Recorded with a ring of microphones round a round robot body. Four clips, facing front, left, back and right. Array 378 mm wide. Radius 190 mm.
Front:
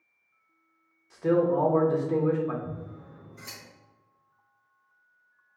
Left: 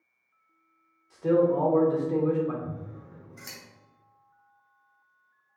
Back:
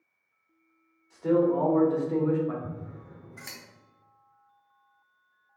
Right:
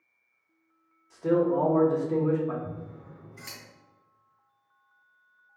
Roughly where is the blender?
No blender in this recording.